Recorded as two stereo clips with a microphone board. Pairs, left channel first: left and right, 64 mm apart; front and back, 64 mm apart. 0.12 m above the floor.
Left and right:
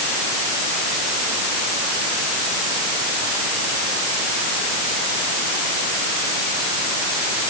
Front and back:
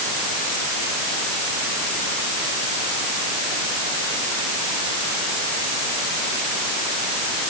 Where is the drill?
I don't hear a drill.